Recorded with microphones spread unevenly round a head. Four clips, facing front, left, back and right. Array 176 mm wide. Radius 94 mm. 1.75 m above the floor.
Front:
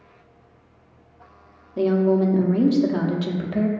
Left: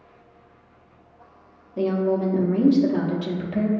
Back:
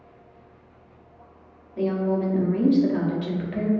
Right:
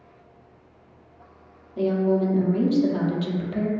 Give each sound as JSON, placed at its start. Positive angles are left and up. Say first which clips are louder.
{"t": 1.8, "sound": "a woman speaking", "louder": "even, front 5 dB", "azimuth_deg": 15, "distance_m": 0.7}